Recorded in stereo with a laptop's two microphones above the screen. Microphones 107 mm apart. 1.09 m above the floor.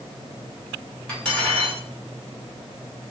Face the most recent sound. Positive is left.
turn(degrees=10)  # may be behind; listen again after turning